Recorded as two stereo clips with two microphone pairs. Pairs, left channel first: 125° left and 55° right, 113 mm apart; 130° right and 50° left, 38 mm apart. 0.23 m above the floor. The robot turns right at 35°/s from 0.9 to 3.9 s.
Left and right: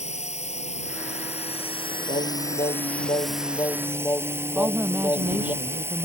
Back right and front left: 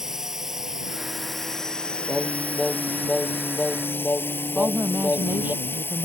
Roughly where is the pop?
I don't hear a pop.